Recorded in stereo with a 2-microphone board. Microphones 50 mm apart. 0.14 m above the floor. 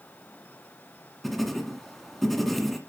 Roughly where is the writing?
Centre.